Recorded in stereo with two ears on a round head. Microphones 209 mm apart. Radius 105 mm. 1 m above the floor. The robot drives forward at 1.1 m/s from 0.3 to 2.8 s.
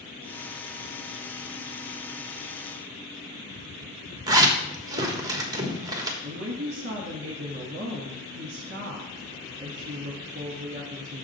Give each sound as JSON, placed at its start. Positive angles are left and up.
{"t": 4.3, "sound": "a zipper", "side_deg": -15, "distance_m": 1.2}
{"t": 6.2, "sound": "a woman speaking", "side_deg": -40, "distance_m": 1.4}